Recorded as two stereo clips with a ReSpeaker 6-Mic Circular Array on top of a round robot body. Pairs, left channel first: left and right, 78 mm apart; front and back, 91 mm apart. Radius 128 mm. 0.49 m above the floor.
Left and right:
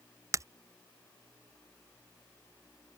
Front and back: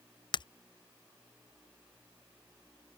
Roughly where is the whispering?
I don't hear whispering.